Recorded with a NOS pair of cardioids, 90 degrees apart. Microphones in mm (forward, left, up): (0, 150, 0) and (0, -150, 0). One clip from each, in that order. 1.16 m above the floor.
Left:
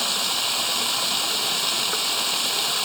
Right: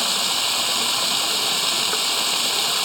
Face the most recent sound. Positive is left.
turn(degrees=-55)